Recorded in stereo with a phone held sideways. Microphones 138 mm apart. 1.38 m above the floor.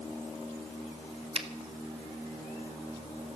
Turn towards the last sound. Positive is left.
turn(degrees=-50)  # may be behind; listen again after turning